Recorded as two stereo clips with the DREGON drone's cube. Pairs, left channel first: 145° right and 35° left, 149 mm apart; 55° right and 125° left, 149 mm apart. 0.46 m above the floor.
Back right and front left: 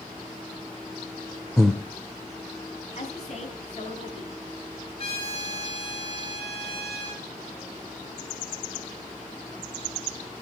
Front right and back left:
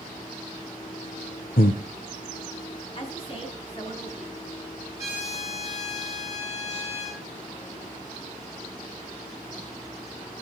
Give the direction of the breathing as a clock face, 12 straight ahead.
2 o'clock.